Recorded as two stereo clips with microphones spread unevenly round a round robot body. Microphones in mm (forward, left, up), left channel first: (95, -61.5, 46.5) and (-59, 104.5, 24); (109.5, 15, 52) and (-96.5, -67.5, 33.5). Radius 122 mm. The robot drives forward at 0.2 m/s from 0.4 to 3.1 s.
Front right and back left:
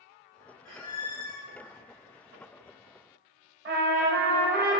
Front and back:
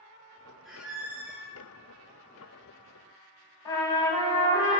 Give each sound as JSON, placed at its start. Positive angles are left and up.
{"t": 0.7, "sound": "a squeak", "azimuth_deg": -65, "distance_m": 1.1}
{"t": 3.6, "sound": "a trumpet", "azimuth_deg": 100, "distance_m": 0.9}